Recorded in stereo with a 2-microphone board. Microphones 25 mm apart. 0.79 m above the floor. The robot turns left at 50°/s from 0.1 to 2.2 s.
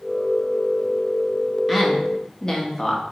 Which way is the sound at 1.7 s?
5° right (ahead or behind).